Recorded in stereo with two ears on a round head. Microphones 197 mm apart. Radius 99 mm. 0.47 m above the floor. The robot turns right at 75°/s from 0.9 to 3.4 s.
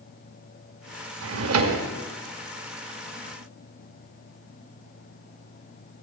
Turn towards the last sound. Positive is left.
turn(degrees=55)